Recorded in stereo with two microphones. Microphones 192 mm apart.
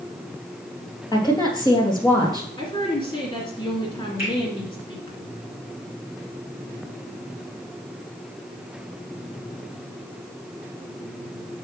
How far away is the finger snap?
About 4.5 m.